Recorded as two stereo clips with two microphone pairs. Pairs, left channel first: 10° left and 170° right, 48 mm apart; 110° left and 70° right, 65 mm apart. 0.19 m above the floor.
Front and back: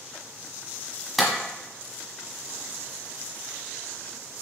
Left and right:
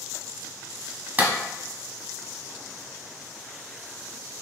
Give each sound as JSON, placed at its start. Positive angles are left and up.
{"t": 1.2, "sound": "a clap", "azimuth_deg": -80, "distance_m": 1.0}